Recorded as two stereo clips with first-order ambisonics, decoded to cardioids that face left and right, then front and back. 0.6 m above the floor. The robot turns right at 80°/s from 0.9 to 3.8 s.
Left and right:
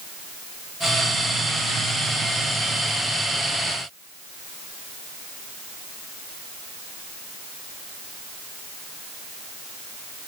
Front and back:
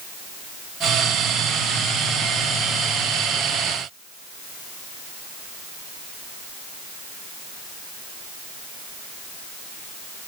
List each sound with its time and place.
Only background noise.